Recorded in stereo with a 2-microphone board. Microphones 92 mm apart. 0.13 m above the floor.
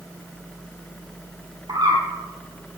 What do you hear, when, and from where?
1.7 s a bird: 50° right (ahead or behind), 3.5 m